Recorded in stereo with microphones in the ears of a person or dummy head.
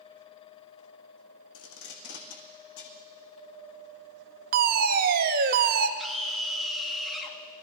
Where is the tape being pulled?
75° left (ahead or behind), 2.5 m.